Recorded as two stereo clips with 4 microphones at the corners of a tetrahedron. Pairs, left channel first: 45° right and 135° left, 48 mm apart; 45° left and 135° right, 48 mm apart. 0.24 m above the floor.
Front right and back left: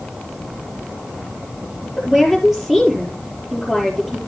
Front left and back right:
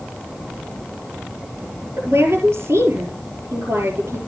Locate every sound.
2.0 s a woman speaking: 145° right, 5 m